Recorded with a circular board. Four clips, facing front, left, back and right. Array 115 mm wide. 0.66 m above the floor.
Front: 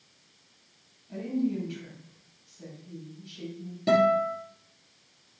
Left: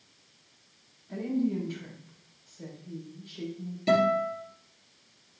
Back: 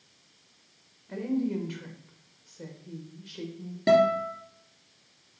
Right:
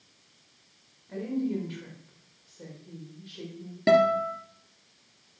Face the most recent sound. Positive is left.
turn(degrees=-115)